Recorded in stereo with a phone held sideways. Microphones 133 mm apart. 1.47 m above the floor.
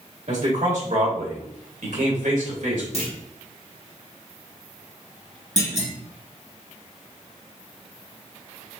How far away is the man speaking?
About 2.5 m.